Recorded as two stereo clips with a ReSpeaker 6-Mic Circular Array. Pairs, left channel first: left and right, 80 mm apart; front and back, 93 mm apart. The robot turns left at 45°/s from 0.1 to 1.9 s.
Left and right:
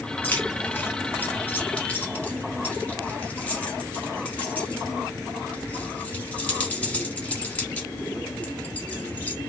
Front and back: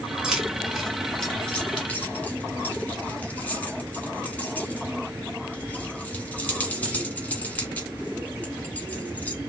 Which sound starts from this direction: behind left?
Keys jangling, at 0.2 s.